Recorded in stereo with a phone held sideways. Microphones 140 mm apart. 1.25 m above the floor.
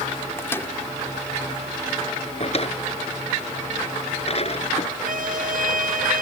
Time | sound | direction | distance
0.4 | a microwave | 15° left (ahead or behind) | ?
2.4 | a drawer | 45° left (ahead or behind) | ?
5.0 | a violin | 85° right | ?